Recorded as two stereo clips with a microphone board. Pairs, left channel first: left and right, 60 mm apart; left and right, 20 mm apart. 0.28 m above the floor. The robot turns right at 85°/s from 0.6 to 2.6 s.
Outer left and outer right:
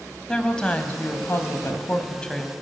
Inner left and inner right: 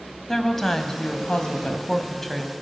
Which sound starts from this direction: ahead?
A woman speaking, at 0.3 s.